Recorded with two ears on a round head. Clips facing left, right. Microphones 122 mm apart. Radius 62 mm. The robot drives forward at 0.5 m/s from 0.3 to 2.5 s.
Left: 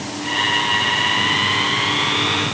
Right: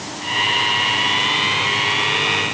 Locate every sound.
Only background noise.